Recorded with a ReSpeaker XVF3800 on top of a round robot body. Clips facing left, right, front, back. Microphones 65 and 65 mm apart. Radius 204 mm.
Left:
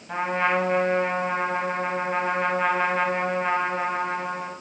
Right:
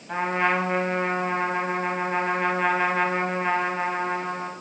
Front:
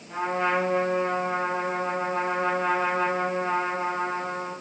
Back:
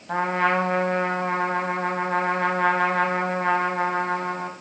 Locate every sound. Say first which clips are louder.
0.1 s a trumpet: even, back 3 dB; straight behind, 0.8 m